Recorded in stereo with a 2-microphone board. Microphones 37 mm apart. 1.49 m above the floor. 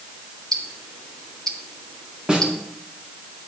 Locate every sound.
0.5 s ticking: 15° left (ahead or behind), 1.7 m
2.3 s a snare drum: 20° right (ahead or behind), 1.7 m